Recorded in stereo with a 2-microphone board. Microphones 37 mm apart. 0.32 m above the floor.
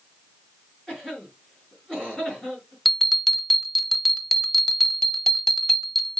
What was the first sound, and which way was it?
A cough, 15° left (ahead or behind).